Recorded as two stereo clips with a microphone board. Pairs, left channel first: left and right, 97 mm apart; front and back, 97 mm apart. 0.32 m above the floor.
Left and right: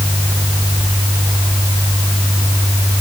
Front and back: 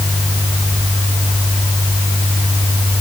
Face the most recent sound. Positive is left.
No sound to turn to.